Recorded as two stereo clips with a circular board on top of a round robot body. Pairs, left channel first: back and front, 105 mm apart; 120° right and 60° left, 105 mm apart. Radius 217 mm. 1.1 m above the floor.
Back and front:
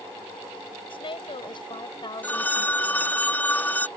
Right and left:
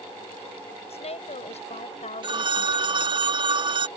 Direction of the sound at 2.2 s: 105° left.